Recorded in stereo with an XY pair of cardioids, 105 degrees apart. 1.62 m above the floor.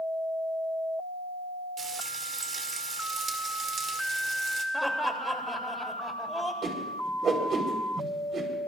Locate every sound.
1.8 s frying: 50° right, 2.5 m
4.7 s laughter: straight ahead, 3 m
6.6 s a whoosh: 55° right, 4 m